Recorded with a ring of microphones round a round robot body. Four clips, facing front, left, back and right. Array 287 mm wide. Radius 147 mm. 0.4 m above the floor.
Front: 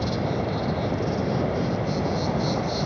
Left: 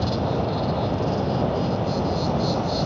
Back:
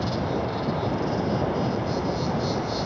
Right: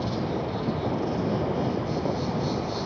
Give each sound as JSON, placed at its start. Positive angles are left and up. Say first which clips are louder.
{"t": 0.0, "sound": "an insect", "louder": "left 4 dB, even", "azimuth_deg": 60, "distance_m": 1.6}